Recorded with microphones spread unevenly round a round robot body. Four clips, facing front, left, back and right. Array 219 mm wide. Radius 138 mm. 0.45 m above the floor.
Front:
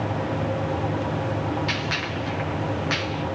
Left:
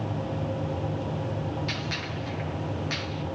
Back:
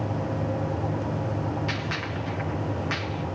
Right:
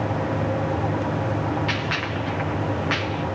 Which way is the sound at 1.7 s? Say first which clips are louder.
Right 7 dB, front 3 dB; 75° right.